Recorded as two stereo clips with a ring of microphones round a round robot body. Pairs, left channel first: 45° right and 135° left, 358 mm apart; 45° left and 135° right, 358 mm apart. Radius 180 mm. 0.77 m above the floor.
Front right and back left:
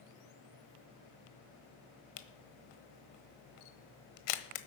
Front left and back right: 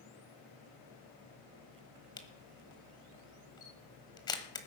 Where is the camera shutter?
35° right, 1.2 m.